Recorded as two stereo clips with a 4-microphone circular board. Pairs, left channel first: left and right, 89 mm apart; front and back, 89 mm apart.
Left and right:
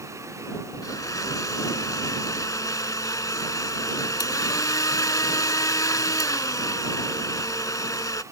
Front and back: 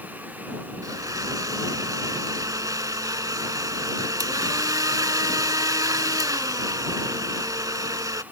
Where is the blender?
135° left.